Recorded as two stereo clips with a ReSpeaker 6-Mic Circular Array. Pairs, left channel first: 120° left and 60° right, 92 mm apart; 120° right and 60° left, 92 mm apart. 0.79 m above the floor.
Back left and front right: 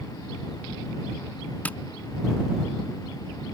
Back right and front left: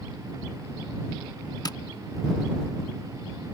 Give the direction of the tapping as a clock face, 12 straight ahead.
6 o'clock.